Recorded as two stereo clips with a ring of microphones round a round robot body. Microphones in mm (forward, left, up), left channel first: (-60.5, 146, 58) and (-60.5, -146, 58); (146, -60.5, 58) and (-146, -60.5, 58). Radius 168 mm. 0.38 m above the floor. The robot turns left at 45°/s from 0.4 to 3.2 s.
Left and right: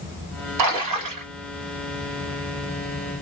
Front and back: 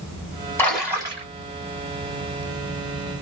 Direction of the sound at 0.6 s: 80° right.